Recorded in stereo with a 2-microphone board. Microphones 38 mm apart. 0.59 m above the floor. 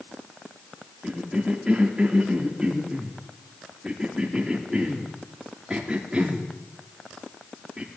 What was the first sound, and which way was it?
A cough, 25° right (ahead or behind).